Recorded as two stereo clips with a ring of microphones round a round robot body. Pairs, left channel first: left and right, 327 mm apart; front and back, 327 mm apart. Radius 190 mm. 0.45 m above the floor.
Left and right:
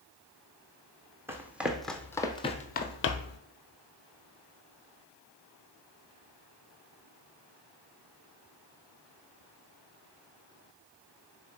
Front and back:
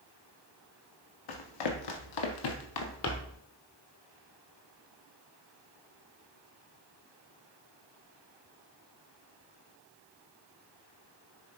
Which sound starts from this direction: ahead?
Running footsteps, at 1.3 s.